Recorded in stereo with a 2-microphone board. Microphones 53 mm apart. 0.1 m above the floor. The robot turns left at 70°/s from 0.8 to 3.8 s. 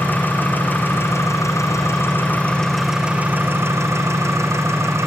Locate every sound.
0.0 s an engine running: 140° left, 4 m; by 5.1 s 70° right, 4 m